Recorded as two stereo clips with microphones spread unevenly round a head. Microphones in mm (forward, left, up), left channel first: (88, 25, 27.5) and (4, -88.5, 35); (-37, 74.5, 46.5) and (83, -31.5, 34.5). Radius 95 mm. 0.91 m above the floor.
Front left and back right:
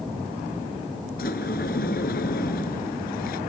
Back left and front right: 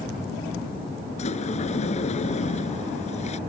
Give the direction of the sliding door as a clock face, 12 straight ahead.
9 o'clock.